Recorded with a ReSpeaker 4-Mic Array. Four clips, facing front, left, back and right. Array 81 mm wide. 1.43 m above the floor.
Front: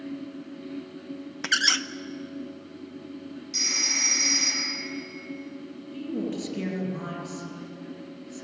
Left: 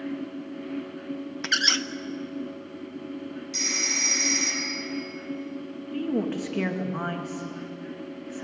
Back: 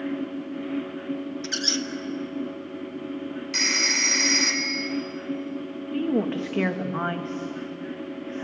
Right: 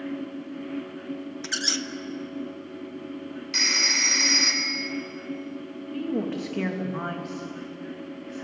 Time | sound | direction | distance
1.4 | a squeak | 30° left | 0.8 m
3.5 | a phone ringing | 145° right | 4.5 m
5.9 | a woman speaking | 175° left | 2.5 m